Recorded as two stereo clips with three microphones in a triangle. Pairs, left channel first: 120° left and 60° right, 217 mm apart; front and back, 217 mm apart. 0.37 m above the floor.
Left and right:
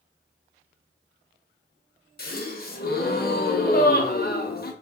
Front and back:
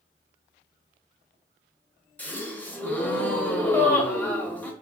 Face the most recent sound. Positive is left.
turn(degrees=80)